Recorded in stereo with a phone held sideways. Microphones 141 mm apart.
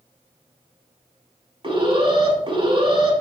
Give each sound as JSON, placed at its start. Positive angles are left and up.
{"t": 1.6, "sound": "an alarm", "side_deg": -35, "distance_m": 6.5}